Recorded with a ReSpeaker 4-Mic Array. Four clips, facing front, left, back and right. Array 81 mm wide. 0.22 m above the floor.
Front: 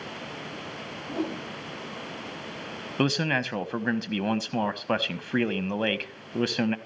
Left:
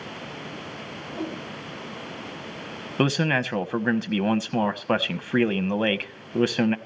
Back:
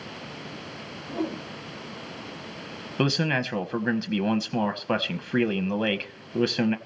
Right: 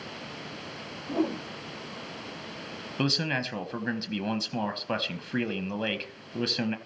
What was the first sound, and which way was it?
A whoosh, 70° right.